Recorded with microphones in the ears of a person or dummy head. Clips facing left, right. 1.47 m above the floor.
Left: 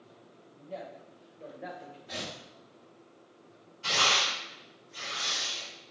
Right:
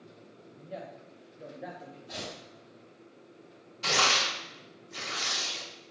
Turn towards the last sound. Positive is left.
turn(degrees=-70)  # may be behind; listen again after turning